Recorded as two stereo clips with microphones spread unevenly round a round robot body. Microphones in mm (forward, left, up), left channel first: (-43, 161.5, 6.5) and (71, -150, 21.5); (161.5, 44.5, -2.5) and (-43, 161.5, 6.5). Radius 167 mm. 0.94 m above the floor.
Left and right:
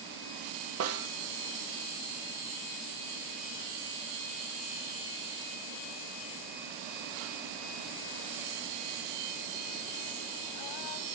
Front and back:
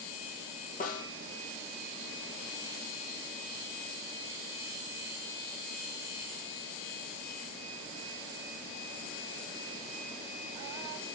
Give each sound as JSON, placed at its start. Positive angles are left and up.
{"t": 0.8, "sound": "a snare drum", "azimuth_deg": -60, "distance_m": 0.9}